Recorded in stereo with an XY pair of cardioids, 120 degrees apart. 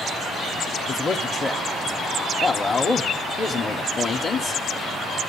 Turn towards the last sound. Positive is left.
turn(degrees=25)